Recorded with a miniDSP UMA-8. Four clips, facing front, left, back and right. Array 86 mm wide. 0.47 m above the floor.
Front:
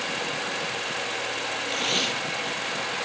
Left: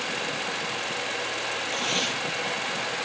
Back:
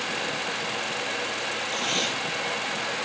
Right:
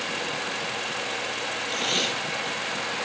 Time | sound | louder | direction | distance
1.7 | tape being pulled | right 2 dB, front 1 dB | 30° right | 1.2 m